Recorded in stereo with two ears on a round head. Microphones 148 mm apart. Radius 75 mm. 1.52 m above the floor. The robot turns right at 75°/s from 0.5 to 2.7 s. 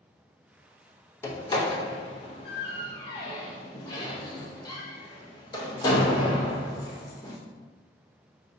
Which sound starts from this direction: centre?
A door slam, at 1.2 s.